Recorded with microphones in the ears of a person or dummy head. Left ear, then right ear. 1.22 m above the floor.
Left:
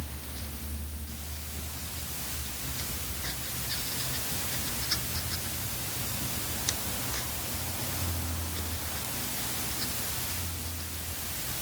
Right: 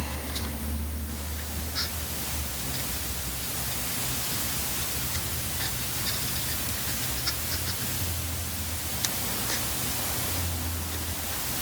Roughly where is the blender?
No blender in this recording.